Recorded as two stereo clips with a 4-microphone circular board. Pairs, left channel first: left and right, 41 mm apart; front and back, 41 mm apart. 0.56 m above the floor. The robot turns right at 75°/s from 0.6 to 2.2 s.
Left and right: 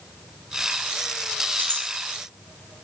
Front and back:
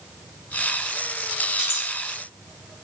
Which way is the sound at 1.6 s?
105° right.